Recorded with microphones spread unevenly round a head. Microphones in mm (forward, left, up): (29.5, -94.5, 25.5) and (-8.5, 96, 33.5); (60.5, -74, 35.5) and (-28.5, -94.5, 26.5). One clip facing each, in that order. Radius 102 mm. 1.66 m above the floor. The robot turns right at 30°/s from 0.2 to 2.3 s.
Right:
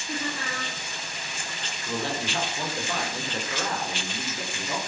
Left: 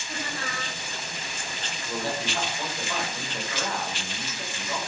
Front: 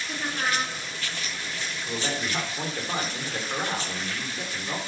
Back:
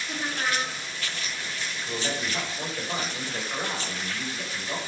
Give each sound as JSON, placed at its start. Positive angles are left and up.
{"t": 0.1, "sound": "laughter", "azimuth_deg": -80, "distance_m": 4.5}
{"t": 1.9, "sound": "a man speaking", "azimuth_deg": -50, "distance_m": 7.0}